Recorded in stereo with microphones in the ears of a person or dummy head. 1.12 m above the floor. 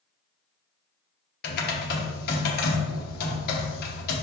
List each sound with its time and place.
1.4 s typing on a keyboard: 50° left (ahead or behind), 1.0 m